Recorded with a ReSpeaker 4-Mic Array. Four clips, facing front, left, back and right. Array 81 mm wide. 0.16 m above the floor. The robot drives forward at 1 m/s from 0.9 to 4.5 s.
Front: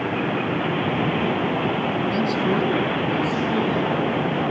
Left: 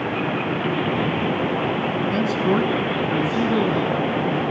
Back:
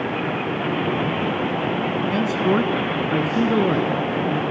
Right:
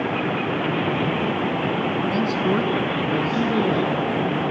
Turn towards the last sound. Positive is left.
turn(degrees=175)